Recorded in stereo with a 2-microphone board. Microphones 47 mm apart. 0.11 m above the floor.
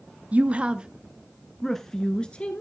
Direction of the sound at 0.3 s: 35° right (ahead or behind).